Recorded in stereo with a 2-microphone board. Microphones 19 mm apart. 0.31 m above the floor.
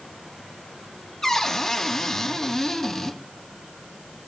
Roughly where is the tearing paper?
No tearing paper in this recording.